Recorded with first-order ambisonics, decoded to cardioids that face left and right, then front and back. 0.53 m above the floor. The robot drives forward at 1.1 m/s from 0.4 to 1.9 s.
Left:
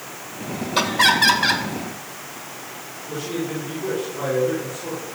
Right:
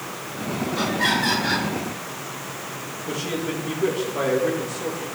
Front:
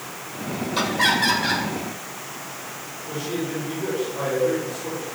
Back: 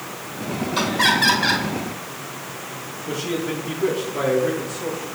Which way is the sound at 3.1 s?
135° right.